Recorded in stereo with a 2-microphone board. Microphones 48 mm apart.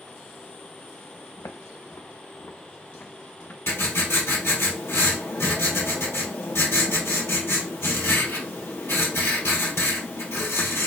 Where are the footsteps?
80° left, 1.2 m; by 4.7 s 25° left (ahead or behind), 2 m.